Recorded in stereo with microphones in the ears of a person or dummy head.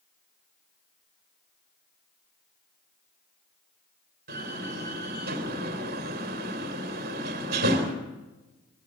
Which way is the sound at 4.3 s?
55° right (ahead or behind).